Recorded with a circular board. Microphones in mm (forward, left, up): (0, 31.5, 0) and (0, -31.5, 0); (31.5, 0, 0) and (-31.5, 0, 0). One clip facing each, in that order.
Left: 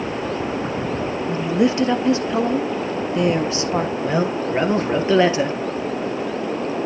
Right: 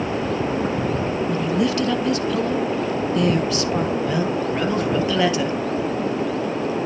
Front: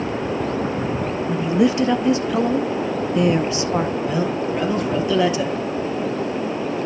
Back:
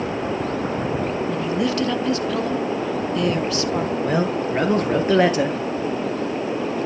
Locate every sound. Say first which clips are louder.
1.3 s a woman speaking: left 4 dB, front 8 dB; 50° left, 1.3 m
4.0 s a man speaking: left 1 dB, back 1 dB; 145° left, 2.5 m